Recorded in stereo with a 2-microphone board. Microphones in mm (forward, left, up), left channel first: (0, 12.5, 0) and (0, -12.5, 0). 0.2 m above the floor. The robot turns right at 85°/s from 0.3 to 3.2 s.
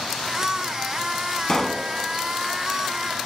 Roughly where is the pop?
Behind left.